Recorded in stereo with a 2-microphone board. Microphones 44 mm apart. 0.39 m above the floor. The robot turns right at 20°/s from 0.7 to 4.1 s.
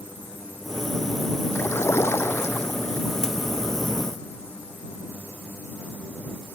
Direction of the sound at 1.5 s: 85° left.